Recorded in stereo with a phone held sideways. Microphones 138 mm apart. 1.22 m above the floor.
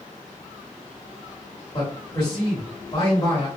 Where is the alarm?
No alarm in this recording.